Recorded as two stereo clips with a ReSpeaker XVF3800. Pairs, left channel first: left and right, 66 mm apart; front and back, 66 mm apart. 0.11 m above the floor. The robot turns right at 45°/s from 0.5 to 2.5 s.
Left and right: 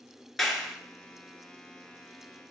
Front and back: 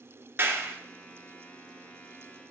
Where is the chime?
No chime in this recording.